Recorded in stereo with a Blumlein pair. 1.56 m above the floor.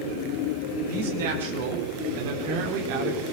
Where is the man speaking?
55° right, 6.5 m; by 3.2 s 45° right, 4.5 m.